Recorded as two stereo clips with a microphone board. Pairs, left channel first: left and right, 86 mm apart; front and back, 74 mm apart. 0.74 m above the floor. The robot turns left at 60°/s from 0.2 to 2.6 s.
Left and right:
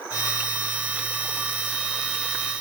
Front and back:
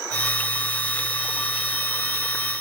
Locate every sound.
Only background noise.